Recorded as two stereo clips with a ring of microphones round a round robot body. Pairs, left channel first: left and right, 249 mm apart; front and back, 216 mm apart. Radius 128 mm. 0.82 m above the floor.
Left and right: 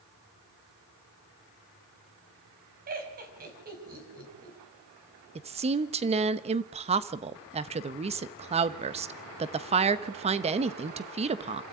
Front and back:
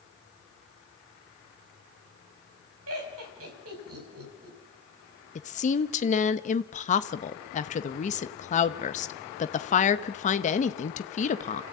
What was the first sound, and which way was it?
Laughter, 145° right.